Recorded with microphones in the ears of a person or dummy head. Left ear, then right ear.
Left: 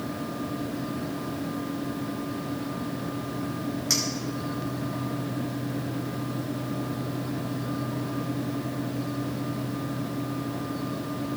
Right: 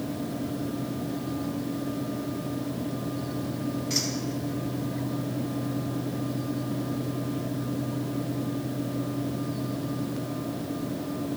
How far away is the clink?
About 4 m.